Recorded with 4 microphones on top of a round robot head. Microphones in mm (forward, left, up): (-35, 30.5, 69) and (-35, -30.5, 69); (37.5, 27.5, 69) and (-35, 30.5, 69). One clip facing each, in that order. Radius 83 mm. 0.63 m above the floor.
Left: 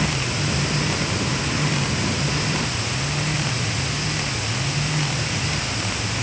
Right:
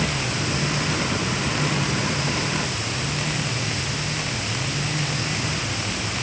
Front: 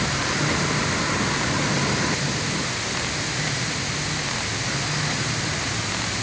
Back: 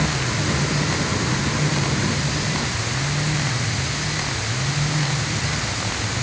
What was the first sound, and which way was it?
Only background noise.